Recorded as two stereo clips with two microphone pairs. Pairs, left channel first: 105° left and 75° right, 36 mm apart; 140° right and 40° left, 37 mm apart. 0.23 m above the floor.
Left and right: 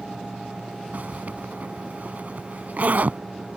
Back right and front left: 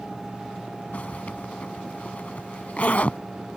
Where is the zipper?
105° right.